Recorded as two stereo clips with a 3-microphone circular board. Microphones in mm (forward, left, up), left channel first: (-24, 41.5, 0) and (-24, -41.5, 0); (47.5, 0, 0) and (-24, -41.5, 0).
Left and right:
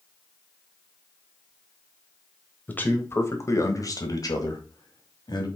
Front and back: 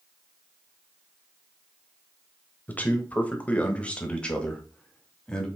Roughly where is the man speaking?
Ahead left.